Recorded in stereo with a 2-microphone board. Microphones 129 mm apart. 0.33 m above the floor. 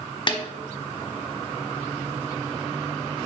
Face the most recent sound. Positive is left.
turn(degrees=40)  # may be behind; listen again after turning